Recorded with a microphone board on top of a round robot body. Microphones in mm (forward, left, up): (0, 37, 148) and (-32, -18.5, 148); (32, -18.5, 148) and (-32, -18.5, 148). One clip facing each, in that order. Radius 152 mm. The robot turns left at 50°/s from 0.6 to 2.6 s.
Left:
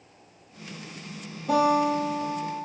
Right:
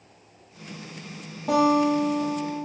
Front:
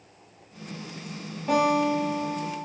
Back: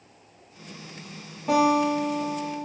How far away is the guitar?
About 0.6 m.